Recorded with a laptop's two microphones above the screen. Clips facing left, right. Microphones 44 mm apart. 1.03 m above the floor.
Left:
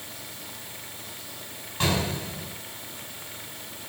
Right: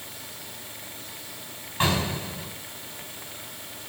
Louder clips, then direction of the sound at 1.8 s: Right 1 dB; 20° right (ahead or behind).